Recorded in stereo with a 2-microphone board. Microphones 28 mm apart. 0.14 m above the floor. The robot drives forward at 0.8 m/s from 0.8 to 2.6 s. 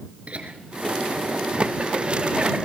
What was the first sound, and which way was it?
Laughter, 45° right (ahead or behind).